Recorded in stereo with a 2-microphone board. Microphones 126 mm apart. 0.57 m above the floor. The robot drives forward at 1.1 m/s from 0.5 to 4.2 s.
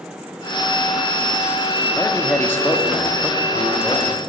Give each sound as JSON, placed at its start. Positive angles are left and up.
{"t": 2.0, "sound": "a man speaking", "side_deg": 20, "distance_m": 1.0}